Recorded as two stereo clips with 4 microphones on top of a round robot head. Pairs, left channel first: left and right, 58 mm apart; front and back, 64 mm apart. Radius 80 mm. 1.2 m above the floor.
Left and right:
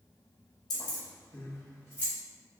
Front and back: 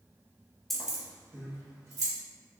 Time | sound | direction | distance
0.7 | keys jangling | 90° left | 1.2 m